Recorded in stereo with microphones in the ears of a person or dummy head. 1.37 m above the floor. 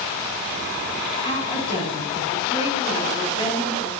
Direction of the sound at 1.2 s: 35° left (ahead or behind).